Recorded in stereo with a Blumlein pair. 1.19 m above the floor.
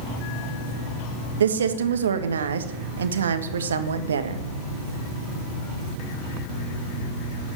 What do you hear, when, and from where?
1.4 s a woman speaking: 70° right, 1.5 m